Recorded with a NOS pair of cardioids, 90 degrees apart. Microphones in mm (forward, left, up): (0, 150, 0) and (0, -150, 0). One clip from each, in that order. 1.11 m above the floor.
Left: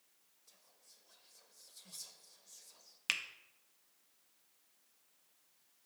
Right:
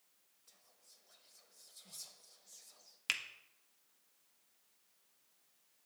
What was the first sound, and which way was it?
Whispering, straight ahead.